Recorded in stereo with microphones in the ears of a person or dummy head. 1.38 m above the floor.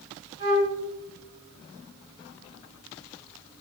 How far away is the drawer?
I don't hear a drawer.